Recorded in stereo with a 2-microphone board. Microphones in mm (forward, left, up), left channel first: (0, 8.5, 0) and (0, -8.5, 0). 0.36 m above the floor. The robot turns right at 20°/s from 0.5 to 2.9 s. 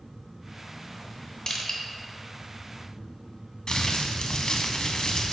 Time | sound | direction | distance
1.5 | crushing | 40° left (ahead or behind) | 0.9 m
3.7 | crumpling | 65° left (ahead or behind) | 0.7 m